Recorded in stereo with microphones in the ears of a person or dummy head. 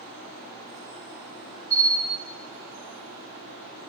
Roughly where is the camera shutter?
Left.